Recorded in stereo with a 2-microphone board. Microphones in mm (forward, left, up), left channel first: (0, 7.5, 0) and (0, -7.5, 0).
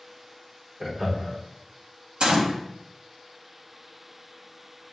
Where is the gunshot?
55° right (ahead or behind), 1.2 m.